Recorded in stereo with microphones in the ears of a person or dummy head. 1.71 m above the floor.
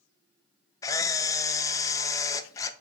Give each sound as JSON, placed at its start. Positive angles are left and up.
{"t": 0.8, "sound": "a camera shutter", "side_deg": 20, "distance_m": 0.8}